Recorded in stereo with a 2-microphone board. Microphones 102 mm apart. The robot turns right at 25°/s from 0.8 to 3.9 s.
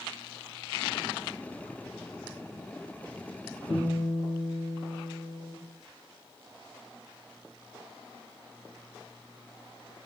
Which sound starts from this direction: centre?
A guitar, at 3.7 s.